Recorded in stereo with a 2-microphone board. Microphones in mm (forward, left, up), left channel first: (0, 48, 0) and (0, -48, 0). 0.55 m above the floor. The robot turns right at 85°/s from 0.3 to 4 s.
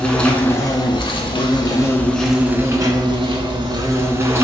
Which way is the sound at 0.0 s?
10° left.